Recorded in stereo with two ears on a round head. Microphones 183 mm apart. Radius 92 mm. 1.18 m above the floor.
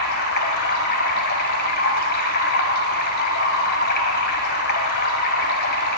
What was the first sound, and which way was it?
Running water, 50° left (ahead or behind).